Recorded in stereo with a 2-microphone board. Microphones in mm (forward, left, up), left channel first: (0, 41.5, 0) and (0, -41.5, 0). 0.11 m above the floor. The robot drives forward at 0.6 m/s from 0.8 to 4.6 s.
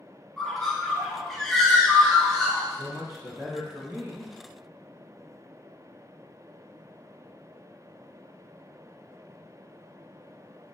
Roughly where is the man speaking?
Right.